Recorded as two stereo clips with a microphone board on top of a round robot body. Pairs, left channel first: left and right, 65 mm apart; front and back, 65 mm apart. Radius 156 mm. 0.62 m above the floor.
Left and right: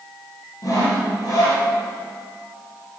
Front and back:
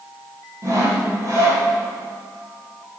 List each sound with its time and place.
0.6 s sawing: 130° left, 4.5 m